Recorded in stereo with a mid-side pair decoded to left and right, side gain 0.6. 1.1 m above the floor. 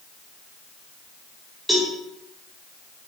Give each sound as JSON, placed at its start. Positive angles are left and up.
{"t": 1.7, "sound": "a cowbell", "azimuth_deg": -10, "distance_m": 5.0}